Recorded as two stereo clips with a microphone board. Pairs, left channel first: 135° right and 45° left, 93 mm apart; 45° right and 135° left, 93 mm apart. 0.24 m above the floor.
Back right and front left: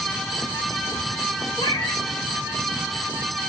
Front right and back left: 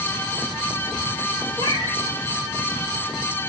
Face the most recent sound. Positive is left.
turn(degrees=-85)